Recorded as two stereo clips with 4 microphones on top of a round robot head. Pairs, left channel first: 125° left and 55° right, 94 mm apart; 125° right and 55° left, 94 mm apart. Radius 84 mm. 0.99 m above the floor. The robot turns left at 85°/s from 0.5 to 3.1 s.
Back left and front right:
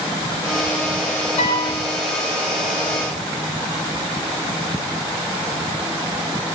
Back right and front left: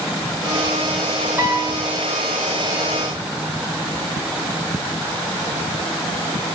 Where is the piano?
130° left, 8 m; by 1.8 s 95° left, 8 m.